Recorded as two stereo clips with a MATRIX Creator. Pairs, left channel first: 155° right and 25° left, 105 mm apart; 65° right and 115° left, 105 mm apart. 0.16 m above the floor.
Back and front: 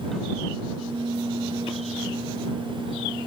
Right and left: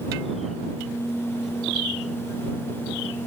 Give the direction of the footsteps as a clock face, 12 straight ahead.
No footsteps in this recording.